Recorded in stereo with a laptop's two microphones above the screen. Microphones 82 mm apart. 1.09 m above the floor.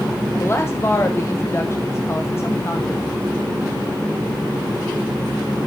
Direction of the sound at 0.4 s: 30° left (ahead or behind).